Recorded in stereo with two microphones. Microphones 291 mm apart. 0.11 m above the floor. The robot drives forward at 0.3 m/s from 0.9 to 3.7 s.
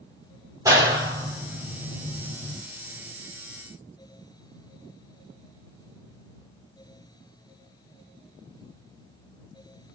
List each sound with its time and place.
0.7 s a clap: 10° right (ahead or behind), 2.0 m